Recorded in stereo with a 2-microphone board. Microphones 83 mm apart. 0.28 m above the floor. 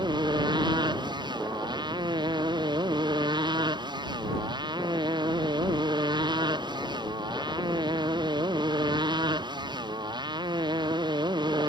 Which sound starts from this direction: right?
A motorcycle, at 0.0 s.